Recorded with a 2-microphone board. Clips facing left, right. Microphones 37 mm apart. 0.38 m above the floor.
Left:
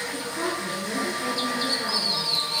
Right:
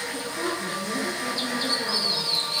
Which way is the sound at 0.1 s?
40° left (ahead or behind).